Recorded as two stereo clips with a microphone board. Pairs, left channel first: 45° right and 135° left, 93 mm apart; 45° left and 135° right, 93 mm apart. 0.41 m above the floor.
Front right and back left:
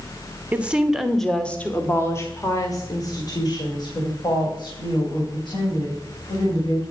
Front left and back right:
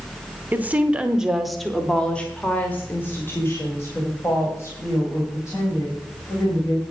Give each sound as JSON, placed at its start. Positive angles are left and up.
{"t": 0.5, "sound": "a woman speaking", "azimuth_deg": -175, "distance_m": 1.1}